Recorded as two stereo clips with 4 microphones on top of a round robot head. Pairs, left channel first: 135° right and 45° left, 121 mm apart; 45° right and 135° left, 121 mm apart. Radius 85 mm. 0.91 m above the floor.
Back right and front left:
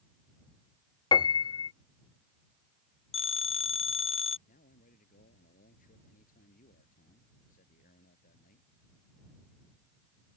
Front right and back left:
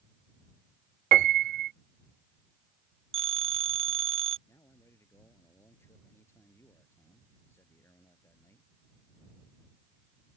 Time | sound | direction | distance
1.1 | a piano | 165° left | ?
3.1 | a phone ringing | straight behind | ?
4.5 | a man speaking | 115° right | ?